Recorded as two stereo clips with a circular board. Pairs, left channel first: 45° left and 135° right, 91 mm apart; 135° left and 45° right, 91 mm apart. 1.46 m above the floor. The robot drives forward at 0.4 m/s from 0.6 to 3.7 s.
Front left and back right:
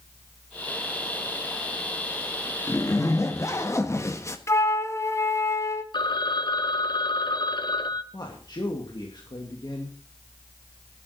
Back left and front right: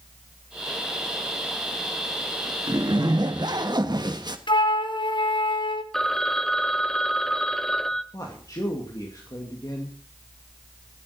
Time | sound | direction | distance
2.7 | a zipper | 10° right | 1.8 m
4.5 | a flute | 105° left | 1.4 m
5.9 | a phone ringing | 50° left | 0.9 m
8.1 | a man speaking | 85° left | 2.5 m